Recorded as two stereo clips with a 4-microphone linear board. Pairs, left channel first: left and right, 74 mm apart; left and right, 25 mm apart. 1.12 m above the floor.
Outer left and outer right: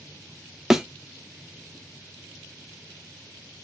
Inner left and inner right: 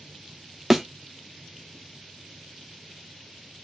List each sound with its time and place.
0.7 s a thud: 10° right (ahead or behind), 0.6 m